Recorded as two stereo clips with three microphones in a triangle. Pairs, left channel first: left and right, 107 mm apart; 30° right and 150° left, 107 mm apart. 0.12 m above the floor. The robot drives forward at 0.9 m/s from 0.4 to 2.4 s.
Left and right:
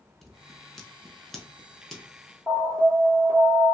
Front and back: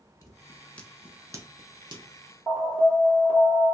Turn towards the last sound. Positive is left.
turn(degrees=-155)